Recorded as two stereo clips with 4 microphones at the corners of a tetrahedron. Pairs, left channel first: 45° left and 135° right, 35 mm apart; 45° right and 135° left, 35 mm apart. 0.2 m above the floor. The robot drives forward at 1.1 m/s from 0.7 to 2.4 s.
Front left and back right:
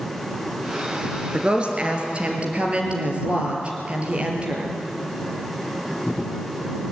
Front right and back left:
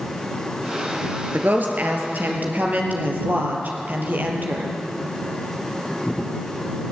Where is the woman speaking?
165° left, 3 m; by 4.7 s 170° left, 4 m.